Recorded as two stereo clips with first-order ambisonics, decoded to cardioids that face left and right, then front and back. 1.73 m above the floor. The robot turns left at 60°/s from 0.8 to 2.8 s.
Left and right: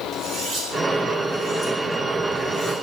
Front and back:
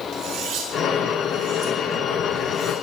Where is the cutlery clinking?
155° right, 4.5 m; by 2.7 s 90° left, 4.5 m.